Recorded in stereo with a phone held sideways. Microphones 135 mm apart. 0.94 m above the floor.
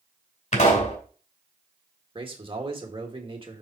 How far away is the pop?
About 2.5 m.